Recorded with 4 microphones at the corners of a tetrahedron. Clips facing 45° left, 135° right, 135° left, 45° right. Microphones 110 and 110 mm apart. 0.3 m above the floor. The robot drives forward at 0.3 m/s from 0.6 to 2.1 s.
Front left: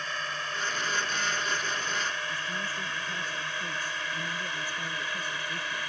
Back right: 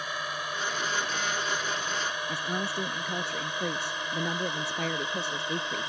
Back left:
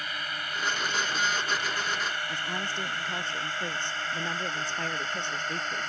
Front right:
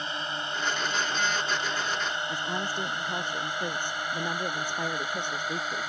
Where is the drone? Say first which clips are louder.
Back right 1 dB, front right 3 dB; 70° right; by 5.9 s 110° right.